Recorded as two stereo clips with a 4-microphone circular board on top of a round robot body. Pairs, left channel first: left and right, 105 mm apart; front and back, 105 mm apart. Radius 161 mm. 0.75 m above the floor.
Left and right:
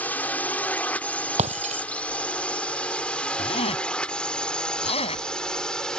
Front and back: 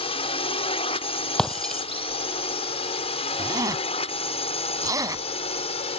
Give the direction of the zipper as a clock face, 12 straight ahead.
8 o'clock.